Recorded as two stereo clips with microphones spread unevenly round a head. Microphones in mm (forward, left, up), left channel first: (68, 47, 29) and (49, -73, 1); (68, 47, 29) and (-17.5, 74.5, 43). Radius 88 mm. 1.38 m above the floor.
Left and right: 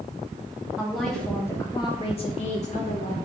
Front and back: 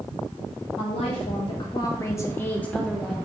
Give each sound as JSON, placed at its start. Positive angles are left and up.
{"t": 0.8, "sound": "a woman speaking", "azimuth_deg": -15, "distance_m": 1.1}